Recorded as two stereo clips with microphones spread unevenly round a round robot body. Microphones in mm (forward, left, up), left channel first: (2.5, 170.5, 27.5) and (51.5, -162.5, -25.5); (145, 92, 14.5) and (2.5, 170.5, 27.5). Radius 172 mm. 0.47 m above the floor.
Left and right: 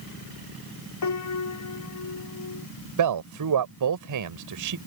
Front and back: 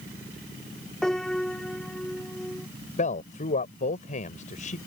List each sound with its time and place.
1.0 s a piano: 60° left
3.0 s a man speaking: 70° right